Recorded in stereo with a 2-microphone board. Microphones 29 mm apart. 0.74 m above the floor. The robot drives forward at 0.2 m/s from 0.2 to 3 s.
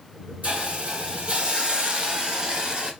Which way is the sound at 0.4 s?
55° right (ahead or behind).